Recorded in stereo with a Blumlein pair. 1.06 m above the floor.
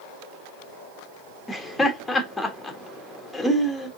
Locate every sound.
1.5 s laughter: 5° left, 1.4 m